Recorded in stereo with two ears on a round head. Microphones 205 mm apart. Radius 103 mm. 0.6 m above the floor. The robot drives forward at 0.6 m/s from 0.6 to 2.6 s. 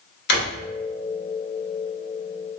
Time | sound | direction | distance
0.3 | a drawer | 45° left (ahead or behind) | 0.8 m